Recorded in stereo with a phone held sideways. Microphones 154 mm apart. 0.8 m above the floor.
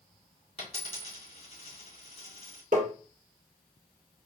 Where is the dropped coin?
40° left (ahead or behind), 2.5 m.